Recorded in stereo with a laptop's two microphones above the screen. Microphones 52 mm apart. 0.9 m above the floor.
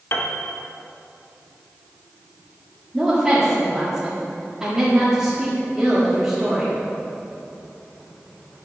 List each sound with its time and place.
0.1 s a piano: 45° left (ahead or behind), 0.9 m
2.9 s a woman speaking: 15° right (ahead or behind), 1.6 m